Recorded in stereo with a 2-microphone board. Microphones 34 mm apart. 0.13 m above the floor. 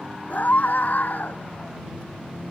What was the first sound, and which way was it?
A scream, 55° left (ahead or behind).